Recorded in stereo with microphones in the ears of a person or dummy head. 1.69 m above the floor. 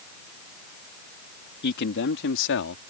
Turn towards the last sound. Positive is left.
turn(degrees=70)  # may be behind; listen again after turning